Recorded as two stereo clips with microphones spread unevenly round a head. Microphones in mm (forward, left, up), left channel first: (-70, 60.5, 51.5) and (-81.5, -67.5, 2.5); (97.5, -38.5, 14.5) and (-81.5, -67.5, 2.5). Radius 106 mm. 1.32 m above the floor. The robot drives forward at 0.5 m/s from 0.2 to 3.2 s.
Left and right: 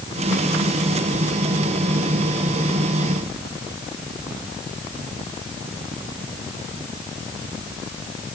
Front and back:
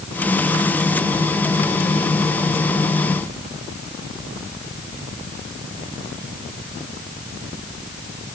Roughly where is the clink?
No clink in this recording.